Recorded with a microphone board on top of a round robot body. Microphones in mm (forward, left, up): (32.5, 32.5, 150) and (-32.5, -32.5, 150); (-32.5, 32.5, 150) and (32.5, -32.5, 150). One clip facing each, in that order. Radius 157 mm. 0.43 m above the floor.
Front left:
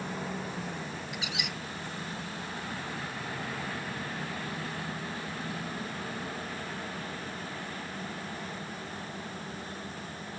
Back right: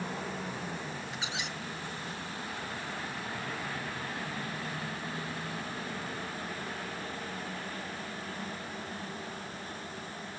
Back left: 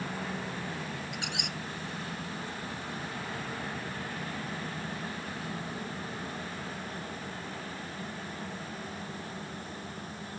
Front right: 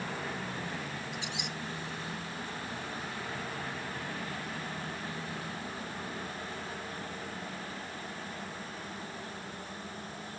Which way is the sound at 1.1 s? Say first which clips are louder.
Front left 1 dB, back left 1 dB; 165° left.